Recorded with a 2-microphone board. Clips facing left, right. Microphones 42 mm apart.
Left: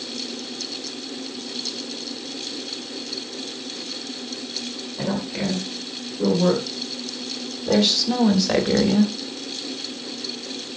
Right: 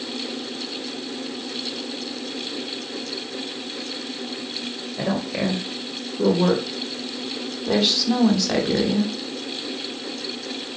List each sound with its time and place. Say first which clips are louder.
5.0 s a woman speaking: right 2 dB; 50° right (ahead or behind), 2.5 m; by 9.1 s 20° left (ahead or behind), 1.2 m